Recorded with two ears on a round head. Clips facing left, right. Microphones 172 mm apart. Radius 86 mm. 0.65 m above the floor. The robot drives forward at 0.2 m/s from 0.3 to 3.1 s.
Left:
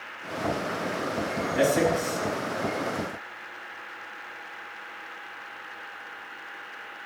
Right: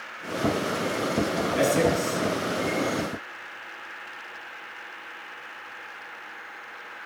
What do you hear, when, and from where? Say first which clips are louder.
1.6 s a man speaking: even; 25° right (ahead or behind), 7.5 m